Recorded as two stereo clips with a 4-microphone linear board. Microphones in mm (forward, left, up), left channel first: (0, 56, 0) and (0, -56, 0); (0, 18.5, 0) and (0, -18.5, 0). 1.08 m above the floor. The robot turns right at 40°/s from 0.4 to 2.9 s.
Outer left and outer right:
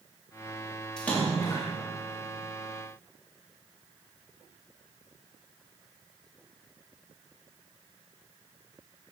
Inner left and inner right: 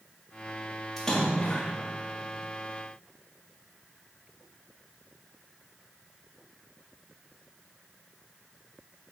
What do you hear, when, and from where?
1.0 s a splash: 5° left (ahead or behind), 2.5 m; by 1.7 s 35° left (ahead or behind), 2.5 m